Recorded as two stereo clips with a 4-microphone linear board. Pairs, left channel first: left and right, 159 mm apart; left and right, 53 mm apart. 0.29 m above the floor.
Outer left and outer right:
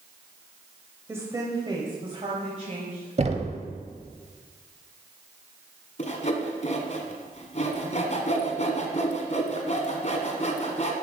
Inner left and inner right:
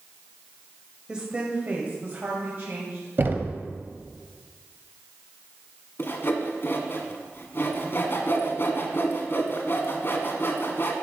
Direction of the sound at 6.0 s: 50° left (ahead or behind).